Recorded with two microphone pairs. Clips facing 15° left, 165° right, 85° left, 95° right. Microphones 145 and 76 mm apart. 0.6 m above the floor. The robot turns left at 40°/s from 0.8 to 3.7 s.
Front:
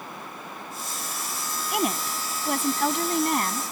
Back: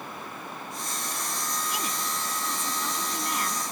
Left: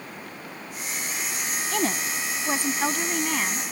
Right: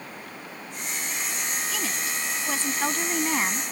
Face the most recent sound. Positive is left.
turn(degrees=-35)